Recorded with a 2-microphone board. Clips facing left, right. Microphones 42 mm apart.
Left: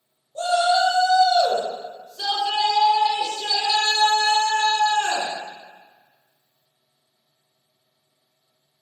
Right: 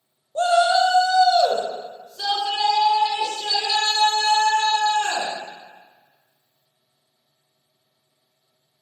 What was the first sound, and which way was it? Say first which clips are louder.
A shout: right 2 dB; 45° right (ahead or behind).